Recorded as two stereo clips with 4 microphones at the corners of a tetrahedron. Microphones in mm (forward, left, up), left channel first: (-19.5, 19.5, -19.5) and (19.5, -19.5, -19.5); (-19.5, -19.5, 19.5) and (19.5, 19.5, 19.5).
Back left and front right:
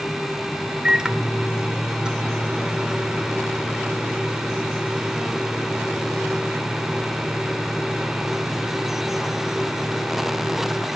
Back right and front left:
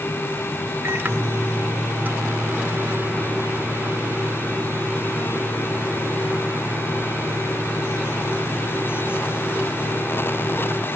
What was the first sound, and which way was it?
A microwave, 20° left.